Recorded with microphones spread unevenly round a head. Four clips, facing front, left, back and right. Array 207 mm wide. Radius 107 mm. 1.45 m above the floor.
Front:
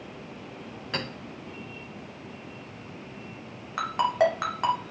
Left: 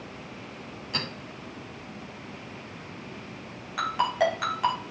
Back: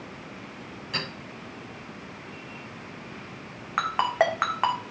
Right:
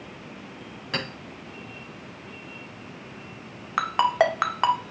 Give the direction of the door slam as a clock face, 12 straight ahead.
I don't hear a door slam.